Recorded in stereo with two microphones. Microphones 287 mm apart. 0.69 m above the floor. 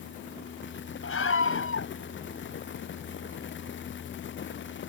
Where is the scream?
50° left (ahead or behind).